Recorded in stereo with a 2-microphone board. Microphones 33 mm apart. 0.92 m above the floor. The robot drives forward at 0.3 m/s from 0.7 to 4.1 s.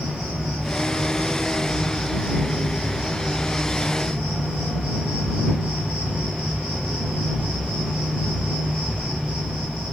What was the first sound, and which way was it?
An insect, 30° right (ahead or behind).